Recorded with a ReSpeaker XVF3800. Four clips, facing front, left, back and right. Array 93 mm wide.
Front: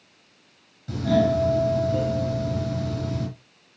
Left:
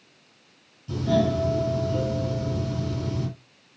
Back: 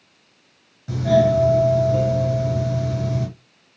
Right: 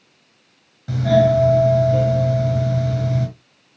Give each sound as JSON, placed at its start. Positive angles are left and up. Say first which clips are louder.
{"t": 0.9, "sound": "a doorbell", "louder": "right 8 dB, back 5 dB", "azimuth_deg": -110, "distance_m": 5.5}